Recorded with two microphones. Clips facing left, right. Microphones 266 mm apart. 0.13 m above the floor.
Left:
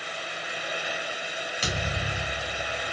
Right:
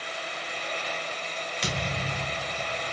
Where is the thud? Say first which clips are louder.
Even; 5° left (ahead or behind), 4 m.